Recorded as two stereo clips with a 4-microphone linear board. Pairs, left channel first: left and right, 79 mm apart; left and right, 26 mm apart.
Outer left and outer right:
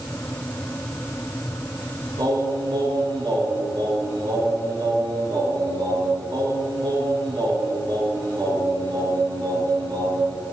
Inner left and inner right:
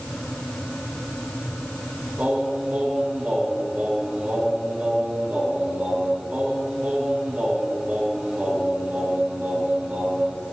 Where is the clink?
I don't hear a clink.